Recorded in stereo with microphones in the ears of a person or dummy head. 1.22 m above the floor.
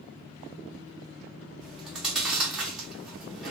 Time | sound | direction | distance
1.6 | chewing | centre (ahead or behind) | 0.9 m